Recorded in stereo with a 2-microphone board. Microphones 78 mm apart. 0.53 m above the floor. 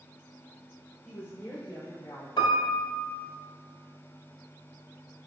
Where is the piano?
75° left (ahead or behind), 0.8 m.